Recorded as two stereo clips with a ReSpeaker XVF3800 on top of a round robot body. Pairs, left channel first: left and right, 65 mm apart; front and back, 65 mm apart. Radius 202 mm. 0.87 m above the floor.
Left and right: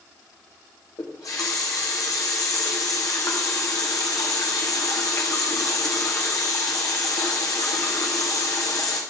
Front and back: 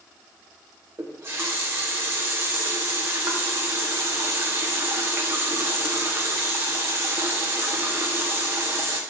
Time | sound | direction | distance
1.0 | a running tap | 125° left | 1.0 m